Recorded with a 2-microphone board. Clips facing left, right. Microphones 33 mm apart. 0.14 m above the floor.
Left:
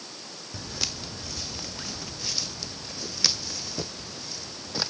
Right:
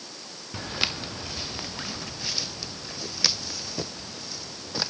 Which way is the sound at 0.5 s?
40° right (ahead or behind).